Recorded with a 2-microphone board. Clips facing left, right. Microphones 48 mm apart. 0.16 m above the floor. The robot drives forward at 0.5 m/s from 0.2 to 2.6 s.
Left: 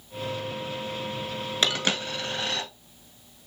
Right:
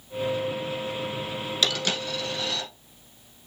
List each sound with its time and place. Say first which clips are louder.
1.6 s a dropped coin: left 1 dB; 35° left (ahead or behind), 1.2 m; by 2.7 s 45° left (ahead or behind), 0.9 m